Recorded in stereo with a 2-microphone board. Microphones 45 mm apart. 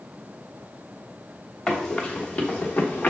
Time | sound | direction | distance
1.7 | running footsteps | 15° left (ahead or behind) | 2 m